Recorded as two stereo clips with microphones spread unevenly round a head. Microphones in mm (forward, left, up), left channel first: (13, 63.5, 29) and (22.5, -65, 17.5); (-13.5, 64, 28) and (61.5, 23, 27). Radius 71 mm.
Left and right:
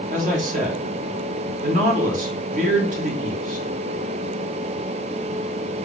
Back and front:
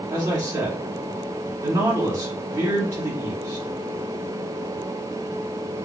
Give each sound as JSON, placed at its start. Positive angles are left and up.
{"t": 0.1, "sound": "a man speaking", "azimuth_deg": -95, "distance_m": 1.2}